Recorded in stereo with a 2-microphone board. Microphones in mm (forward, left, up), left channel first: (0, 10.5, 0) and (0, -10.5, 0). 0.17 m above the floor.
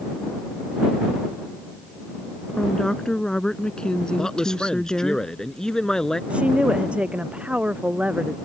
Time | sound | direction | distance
2.6 | a woman speaking | 30° left (ahead or behind) | ?
4.2 | a man speaking | 35° left (ahead or behind) | ?
6.3 | a woman speaking | 70° right (ahead or behind) | ?